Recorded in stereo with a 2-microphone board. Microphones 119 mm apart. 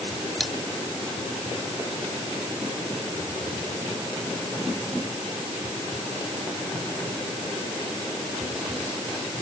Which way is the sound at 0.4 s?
Centre (ahead or behind).